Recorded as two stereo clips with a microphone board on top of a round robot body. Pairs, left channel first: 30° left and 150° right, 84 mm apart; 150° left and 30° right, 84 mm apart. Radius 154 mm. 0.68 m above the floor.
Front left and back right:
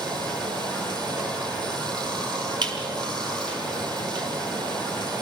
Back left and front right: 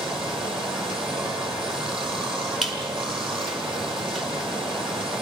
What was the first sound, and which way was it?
Running water, 110° right.